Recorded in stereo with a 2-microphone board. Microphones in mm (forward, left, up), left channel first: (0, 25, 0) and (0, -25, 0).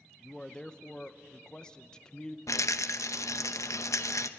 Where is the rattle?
75° left (ahead or behind), 0.8 m.